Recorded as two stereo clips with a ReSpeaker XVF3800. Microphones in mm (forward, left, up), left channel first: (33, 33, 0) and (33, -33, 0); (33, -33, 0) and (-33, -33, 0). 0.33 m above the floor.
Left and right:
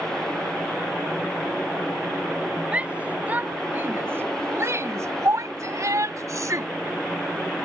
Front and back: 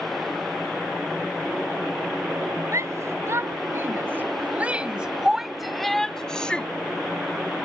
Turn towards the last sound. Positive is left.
turn(degrees=-70)